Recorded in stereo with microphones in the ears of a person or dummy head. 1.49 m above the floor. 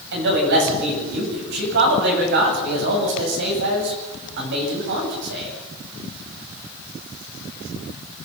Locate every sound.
0.1 s a man speaking: 65° right (ahead or behind), 8.5 m